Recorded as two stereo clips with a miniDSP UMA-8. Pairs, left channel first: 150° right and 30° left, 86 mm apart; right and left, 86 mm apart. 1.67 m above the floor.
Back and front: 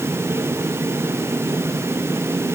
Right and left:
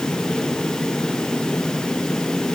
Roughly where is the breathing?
No breathing in this recording.